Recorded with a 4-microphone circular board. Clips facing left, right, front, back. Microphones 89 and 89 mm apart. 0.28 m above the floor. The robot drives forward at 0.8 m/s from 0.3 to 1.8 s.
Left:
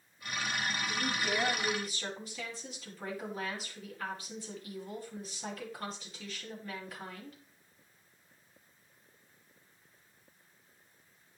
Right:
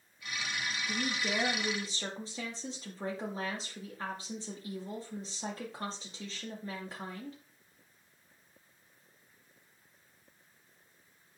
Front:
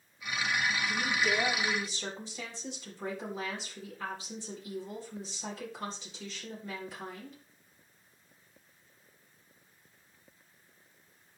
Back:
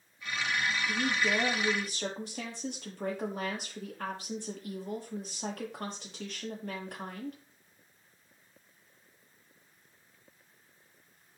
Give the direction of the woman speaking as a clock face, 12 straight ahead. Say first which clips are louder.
Right 2 dB, back 1 dB; 5 o'clock.